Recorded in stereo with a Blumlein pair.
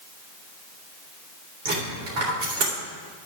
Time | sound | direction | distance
1.6 | a dropped coin | 55° right | 3.5 m